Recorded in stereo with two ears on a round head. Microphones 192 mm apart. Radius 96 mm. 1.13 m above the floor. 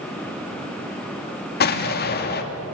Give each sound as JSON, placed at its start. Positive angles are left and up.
{"t": 1.6, "sound": "an explosion", "side_deg": 50, "distance_m": 2.5}